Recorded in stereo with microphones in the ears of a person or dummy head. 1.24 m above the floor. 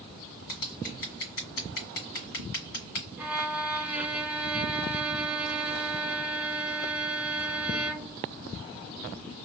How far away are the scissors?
About 1.7 m.